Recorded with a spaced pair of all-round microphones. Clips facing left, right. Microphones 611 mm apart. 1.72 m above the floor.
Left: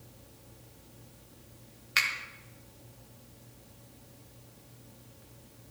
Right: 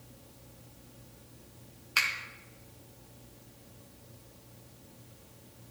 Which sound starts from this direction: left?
A finger snap, at 2.0 s.